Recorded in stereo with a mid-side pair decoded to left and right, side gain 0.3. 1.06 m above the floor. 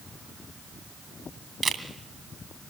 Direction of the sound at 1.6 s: 55° right.